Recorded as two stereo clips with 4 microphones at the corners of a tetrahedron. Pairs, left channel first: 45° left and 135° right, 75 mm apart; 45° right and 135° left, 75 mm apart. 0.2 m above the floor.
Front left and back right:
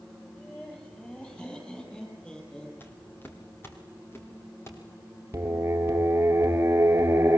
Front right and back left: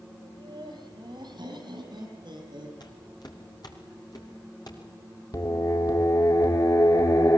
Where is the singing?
80° right, 2.5 m.